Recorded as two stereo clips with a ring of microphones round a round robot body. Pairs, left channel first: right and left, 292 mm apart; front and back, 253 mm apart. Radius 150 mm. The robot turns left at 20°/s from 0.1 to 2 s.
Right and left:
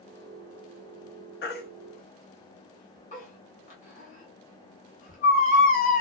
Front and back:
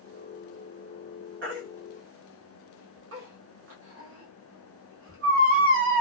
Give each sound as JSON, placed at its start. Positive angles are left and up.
{"t": 1.4, "sound": "a baby crying", "azimuth_deg": -140, "distance_m": 0.9}